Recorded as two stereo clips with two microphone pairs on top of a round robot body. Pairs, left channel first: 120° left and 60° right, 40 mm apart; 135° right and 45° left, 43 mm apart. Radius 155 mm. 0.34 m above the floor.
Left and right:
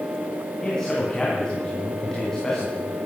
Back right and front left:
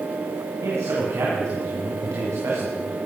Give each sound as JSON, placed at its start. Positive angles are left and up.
{"t": 0.6, "sound": "a man speaking", "azimuth_deg": 40, "distance_m": 3.5}